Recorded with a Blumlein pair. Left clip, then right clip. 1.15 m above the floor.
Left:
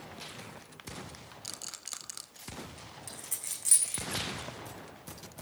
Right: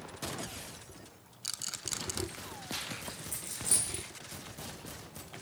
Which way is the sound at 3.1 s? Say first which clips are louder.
Even; 30° left.